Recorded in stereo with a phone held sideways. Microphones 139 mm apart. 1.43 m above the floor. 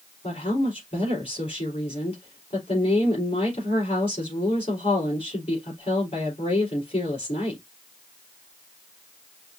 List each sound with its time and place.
0.2 s a woman speaking: 45° left (ahead or behind), 3.5 m